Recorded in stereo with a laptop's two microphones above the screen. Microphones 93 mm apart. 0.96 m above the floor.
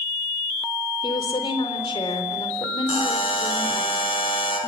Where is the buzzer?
70° left (ahead or behind), 5.5 m.